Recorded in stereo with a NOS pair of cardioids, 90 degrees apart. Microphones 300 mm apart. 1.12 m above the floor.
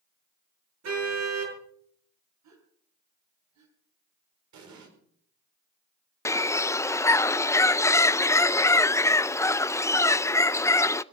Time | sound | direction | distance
0.8 | a car horn | 55° right | 7.5 m
2.4 | a gasp | 65° right | 4 m
4.5 | an explosion | 65° right | 5 m
6.2 | a bird | 10° left | 0.6 m